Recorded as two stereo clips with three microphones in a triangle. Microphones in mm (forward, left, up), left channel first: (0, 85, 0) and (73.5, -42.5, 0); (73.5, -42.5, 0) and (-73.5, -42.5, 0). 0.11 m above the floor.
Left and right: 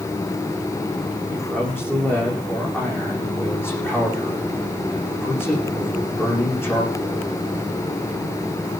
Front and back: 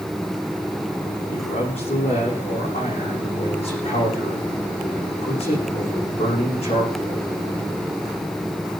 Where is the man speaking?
45° left, 8 m.